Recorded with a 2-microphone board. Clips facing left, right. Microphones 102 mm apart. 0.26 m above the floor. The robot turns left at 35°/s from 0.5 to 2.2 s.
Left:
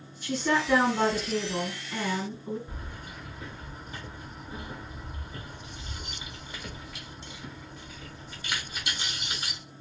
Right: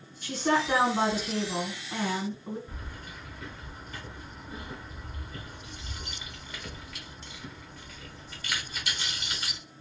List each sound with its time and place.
0.2 s a woman speaking: 75° right, 2 m; by 2.6 s 135° right, 2 m
2.7 s keys jangling: 20° left (ahead or behind), 1.1 m